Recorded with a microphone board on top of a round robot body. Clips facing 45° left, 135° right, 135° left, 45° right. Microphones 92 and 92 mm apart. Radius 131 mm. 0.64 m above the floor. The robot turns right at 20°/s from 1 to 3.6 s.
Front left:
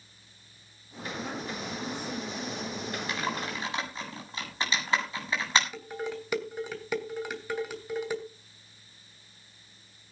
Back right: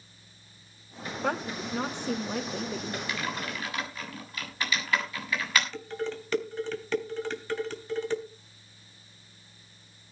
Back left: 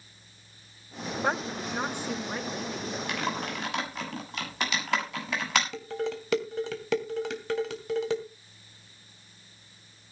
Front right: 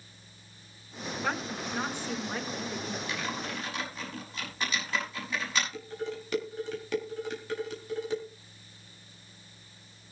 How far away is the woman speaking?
About 3.5 m.